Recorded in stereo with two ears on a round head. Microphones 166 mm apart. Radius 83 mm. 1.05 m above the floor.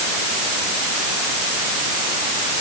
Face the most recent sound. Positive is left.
No sound to turn to.